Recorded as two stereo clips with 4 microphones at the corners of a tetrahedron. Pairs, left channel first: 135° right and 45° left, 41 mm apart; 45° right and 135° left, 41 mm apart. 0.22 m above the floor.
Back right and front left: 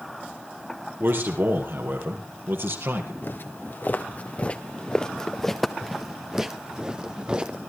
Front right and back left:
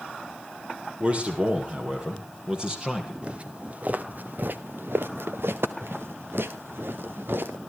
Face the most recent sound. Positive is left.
turn(degrees=110)